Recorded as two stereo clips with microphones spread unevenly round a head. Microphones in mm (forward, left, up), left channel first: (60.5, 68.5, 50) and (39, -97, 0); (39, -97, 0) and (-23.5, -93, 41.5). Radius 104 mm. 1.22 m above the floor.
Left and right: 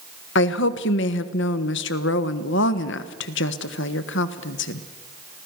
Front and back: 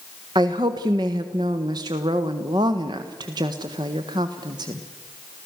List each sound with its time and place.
0.3 s a woman speaking: 110° left, 1.4 m